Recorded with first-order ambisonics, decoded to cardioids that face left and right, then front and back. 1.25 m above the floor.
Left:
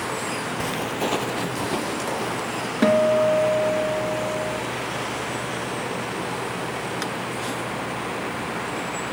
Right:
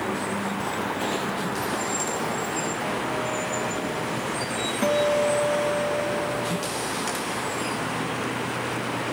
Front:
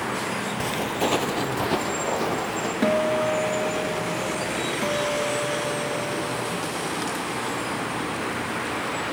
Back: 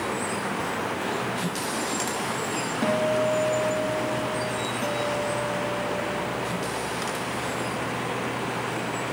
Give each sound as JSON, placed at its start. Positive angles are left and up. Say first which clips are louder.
{"t": 0.6, "sound": "footsteps", "louder": "left 3 dB, front 3 dB", "azimuth_deg": 40, "distance_m": 1.5}
{"t": 2.8, "sound": "a guitar", "louder": "left 9 dB, front 2 dB", "azimuth_deg": 75, "distance_m": 2.0}
{"t": 4.8, "sound": "a guitar", "louder": "right 7 dB, front 3 dB", "azimuth_deg": -85, "distance_m": 1.7}